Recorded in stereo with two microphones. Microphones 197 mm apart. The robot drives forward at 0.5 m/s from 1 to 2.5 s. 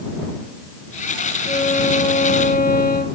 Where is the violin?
45° left (ahead or behind), 1.8 m; by 3.2 s 50° left (ahead or behind), 1.6 m.